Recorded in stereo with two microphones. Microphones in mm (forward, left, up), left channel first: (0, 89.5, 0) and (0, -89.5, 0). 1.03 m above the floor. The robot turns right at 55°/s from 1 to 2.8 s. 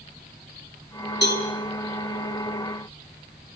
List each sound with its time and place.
1.2 s a cowbell: 75° left (ahead or behind), 4.5 m; by 1.4 s 60° left (ahead or behind), 4.5 m